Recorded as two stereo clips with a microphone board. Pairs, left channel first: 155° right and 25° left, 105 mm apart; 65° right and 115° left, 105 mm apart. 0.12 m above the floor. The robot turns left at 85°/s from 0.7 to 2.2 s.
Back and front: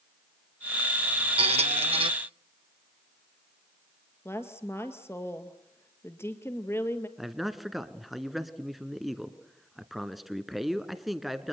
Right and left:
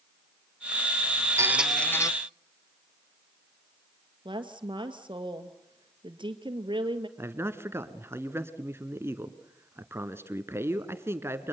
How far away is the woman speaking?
About 2 m.